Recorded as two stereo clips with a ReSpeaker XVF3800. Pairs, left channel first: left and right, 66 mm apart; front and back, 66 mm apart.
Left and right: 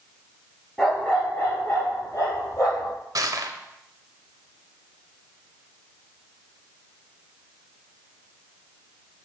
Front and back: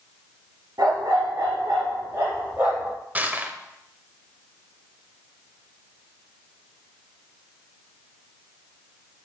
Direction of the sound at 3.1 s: 115° right.